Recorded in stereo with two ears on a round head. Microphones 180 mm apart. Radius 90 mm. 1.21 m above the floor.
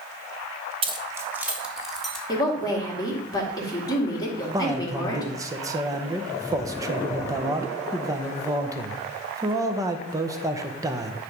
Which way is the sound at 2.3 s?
20° left (ahead or behind).